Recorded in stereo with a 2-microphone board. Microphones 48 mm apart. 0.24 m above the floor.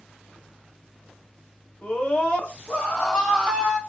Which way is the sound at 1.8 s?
25° left (ahead or behind).